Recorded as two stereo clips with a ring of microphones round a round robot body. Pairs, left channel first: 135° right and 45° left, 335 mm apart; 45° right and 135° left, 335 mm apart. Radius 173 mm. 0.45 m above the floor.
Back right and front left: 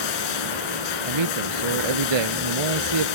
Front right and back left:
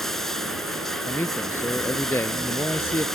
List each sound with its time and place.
0.0 s running water: 135° right
1.0 s a man speaking: 40° left